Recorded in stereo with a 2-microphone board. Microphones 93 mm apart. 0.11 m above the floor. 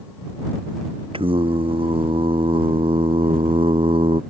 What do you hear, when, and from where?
1.1 s singing: 75° right (ahead or behind)